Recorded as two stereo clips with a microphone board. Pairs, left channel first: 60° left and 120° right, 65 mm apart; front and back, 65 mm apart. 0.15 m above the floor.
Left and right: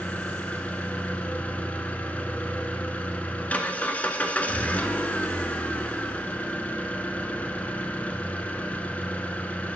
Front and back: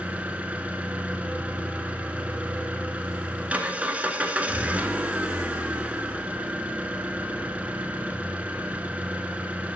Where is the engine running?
120° left, 0.8 m.